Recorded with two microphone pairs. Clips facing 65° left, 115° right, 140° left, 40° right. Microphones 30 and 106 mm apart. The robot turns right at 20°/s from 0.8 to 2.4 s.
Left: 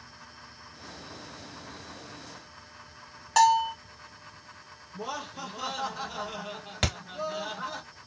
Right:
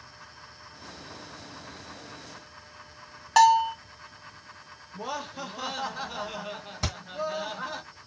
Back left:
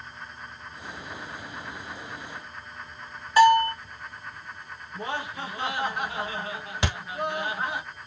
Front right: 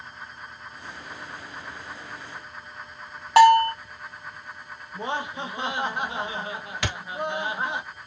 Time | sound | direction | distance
3.4 | a bell | 40° right | 0.7 m
4.9 | laughter | 60° right | 0.8 m
6.8 | a thud | 75° left | 1.0 m